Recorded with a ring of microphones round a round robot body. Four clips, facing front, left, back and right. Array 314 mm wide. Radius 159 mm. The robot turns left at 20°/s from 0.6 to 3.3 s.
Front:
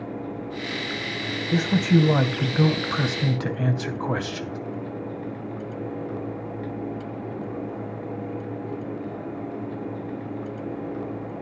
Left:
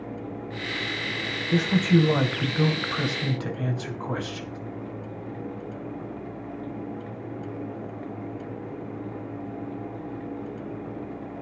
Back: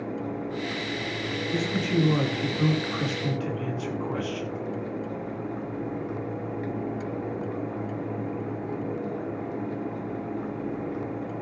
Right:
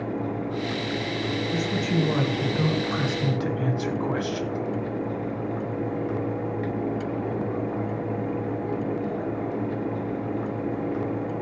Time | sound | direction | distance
1.5 | a man speaking | 30° left | 3 m